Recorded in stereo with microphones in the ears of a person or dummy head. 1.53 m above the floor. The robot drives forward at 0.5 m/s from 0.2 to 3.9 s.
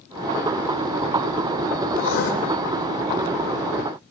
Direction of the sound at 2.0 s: 75° left (ahead or behind).